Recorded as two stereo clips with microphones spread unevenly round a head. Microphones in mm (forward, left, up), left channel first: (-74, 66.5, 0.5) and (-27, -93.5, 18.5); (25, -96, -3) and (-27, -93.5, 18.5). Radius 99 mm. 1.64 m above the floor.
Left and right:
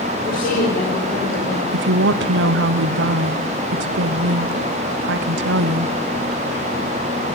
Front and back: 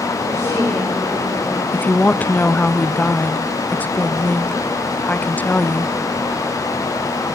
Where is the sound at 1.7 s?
70° right, 0.7 m.